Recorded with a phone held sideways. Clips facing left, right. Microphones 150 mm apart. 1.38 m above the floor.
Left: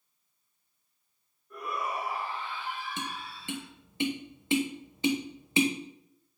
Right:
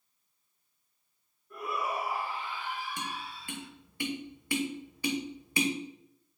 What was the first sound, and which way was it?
A shout, 5° right (ahead or behind).